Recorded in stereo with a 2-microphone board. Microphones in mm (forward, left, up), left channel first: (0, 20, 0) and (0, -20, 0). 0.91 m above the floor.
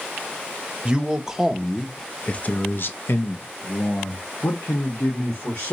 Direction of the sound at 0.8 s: 20° right (ahead or behind).